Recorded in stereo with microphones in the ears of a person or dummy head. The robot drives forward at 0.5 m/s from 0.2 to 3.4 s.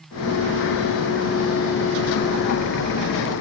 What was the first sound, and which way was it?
Only background noise.